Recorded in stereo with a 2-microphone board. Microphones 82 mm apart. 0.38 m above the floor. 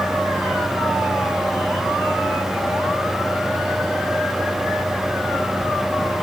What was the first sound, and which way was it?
Only background noise.